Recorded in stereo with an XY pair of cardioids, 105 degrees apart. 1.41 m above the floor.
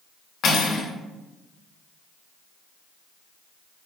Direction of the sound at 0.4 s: 65° left.